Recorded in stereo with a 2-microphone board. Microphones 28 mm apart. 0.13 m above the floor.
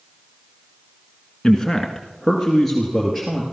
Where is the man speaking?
15° left (ahead or behind), 1.3 m; by 3.4 s centre (ahead or behind), 2.5 m.